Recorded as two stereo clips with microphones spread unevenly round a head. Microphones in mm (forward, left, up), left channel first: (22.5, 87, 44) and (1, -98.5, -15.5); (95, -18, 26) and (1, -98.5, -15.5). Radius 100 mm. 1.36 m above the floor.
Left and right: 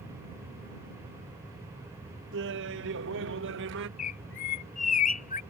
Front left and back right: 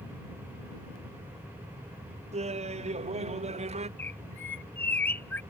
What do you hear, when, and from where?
2.3 s laughter: 110° right
4.0 s a bird: 105° left